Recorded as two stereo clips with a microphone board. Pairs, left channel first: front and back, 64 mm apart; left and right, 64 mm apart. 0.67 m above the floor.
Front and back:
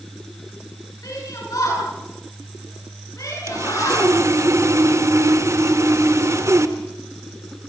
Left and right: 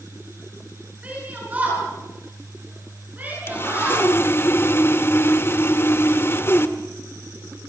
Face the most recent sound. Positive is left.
turn(degrees=140)